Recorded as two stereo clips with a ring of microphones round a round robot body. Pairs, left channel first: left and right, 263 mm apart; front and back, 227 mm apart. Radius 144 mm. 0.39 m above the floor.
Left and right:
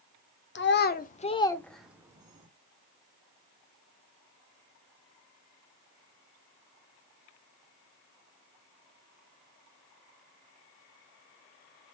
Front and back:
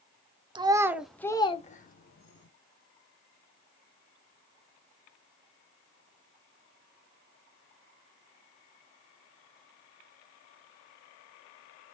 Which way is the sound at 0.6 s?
115° left.